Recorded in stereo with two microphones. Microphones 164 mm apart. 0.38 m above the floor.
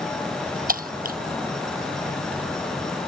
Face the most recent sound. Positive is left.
turn(degrees=-60)  # may be behind; listen again after turning